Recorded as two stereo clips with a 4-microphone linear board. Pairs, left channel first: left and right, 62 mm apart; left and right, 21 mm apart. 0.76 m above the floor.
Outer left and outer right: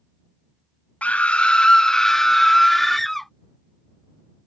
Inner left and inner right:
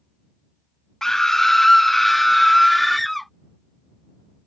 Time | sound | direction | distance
1.0 | a scream | 25° left (ahead or behind) | ?